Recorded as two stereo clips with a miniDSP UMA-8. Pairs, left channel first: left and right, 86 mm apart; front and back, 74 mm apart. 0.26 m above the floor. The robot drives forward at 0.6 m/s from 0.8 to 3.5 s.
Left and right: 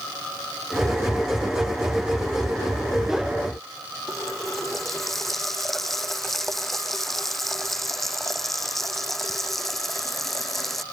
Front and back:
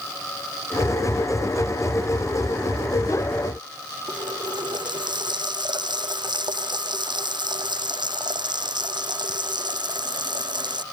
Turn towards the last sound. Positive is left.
turn(degrees=175)